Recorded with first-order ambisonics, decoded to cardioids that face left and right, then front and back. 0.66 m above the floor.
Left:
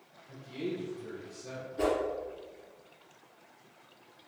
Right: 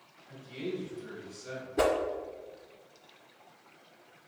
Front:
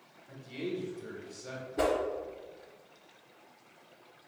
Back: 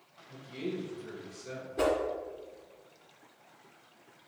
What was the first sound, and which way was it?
A man speaking, straight ahead.